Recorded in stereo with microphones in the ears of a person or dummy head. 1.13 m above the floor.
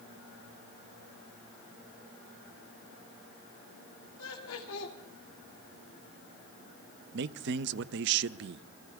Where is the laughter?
75° left (ahead or behind), 2.5 m.